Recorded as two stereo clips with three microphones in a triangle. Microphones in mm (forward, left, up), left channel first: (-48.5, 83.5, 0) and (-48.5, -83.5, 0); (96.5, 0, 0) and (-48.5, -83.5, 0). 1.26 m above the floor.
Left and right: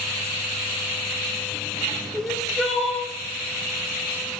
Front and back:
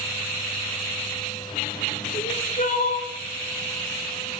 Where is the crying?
Straight ahead, 1.5 m.